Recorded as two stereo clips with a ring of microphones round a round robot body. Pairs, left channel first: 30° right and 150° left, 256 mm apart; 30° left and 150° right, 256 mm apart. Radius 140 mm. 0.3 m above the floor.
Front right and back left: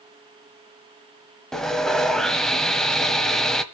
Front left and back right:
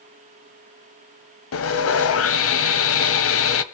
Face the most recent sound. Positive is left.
turn(degrees=60)